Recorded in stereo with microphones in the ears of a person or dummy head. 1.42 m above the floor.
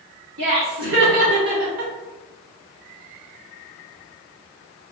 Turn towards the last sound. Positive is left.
turn(degrees=-60)  # may be behind; listen again after turning